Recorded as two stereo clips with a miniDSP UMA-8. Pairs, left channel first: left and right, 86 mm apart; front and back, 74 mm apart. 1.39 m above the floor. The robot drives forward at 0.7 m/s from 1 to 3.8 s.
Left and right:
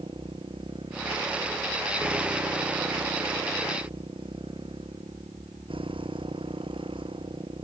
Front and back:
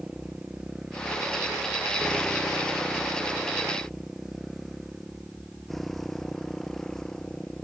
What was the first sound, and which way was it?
A motorcycle, 100° right.